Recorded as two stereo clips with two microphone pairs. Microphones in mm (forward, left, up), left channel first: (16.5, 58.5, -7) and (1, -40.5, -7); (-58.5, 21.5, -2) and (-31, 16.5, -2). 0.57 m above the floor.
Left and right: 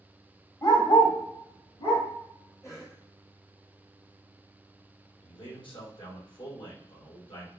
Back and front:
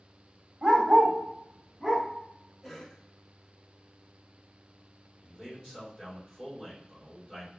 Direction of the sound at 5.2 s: 65° left.